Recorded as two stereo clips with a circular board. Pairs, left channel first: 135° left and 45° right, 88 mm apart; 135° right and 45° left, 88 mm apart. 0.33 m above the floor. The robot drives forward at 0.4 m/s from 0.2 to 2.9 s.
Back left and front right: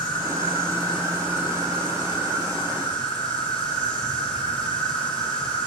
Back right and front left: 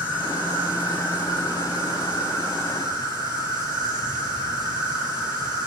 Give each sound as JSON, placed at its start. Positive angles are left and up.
{"t": 0.0, "sound": "an insect", "azimuth_deg": 120, "distance_m": 7.5}